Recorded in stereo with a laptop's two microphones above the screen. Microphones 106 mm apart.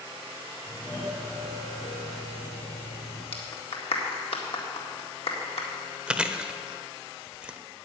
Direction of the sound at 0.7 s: 30° left (ahead or behind).